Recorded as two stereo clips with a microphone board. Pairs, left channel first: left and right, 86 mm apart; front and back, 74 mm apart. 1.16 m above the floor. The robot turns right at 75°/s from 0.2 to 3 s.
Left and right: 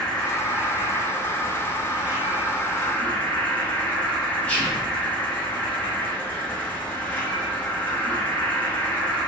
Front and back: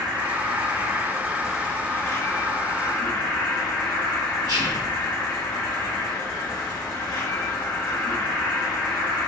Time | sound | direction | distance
0.0 | an insect | 170° left | 1.4 m
4.5 | whispering | 165° left | 1.1 m